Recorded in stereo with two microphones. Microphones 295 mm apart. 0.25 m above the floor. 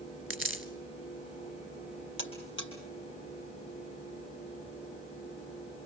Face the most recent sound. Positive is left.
turn(degrees=40)  # may be behind; listen again after turning